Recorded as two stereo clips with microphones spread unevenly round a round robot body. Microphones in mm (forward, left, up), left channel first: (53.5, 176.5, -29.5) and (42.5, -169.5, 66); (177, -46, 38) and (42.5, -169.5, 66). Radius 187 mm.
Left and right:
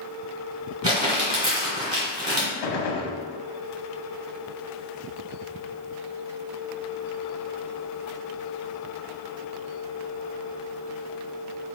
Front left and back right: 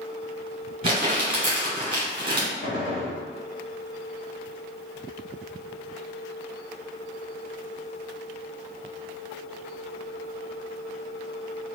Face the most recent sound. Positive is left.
turn(degrees=105)